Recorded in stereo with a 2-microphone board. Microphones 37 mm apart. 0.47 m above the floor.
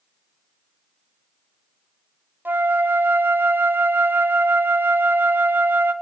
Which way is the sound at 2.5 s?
65° right (ahead or behind).